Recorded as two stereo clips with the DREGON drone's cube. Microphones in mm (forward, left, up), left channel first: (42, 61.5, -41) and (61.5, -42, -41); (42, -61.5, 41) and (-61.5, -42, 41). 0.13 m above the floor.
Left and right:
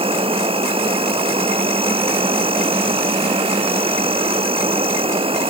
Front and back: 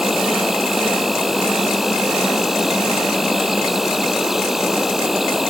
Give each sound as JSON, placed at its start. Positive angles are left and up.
{"t": 0.0, "sound": "an insect", "azimuth_deg": -105}